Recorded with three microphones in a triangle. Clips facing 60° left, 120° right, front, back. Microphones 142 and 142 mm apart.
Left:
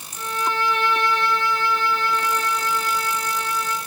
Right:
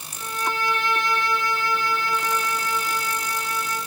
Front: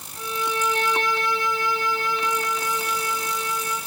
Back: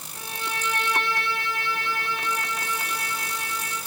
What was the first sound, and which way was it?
A violin, 160° right.